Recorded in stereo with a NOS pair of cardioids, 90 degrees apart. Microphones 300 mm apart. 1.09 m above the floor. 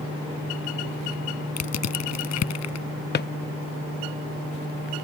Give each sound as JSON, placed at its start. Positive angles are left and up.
{"t": 1.6, "sound": "crushing", "azimuth_deg": 65}
{"t": 3.1, "sound": "a drawer", "azimuth_deg": 40}